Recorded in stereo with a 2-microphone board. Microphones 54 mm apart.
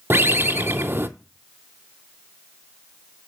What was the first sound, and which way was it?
A bird, 45° right (ahead or behind).